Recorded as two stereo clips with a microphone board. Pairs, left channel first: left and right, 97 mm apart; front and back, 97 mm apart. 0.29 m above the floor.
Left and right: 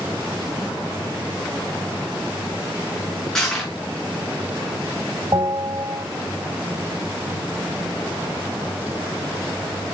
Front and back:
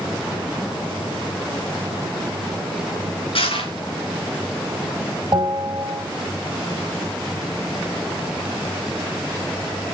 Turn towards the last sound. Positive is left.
turn(degrees=-130)